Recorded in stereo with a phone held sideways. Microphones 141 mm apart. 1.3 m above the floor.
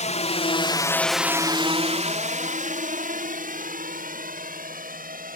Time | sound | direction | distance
0.0 | a drone | 60° left (ahead or behind) | ?